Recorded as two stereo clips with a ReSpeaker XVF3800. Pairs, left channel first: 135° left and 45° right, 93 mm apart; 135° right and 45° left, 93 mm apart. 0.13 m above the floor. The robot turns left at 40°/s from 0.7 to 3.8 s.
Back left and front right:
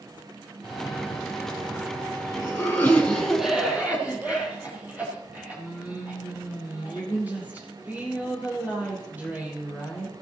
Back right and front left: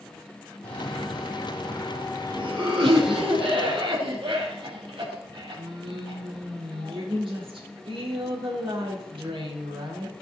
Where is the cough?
150° left, 3.5 m; by 10.1 s 25° left, 3.5 m.